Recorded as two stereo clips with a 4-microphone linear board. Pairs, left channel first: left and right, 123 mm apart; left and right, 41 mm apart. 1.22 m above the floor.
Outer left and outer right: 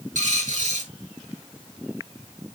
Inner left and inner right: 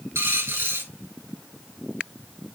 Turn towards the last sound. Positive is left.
turn(degrees=-85)